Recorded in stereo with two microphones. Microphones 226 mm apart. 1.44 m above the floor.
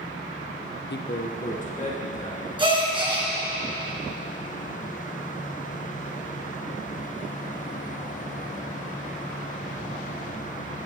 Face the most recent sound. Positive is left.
turn(degrees=-20)  # may be behind; listen again after turning